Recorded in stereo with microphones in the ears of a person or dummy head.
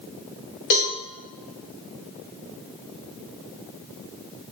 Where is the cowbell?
55° left (ahead or behind), 1.7 m.